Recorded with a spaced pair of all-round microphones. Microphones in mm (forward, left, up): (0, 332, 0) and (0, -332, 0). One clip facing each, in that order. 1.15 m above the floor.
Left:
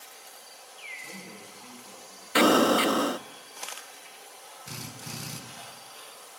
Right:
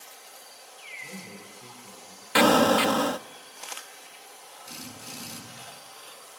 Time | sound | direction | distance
1.0 | a man speaking | 65° right (ahead or behind) | 9.5 m
2.4 | an explosion | 25° right (ahead or behind) | 0.6 m
4.7 | a drill | 80° left | 5.5 m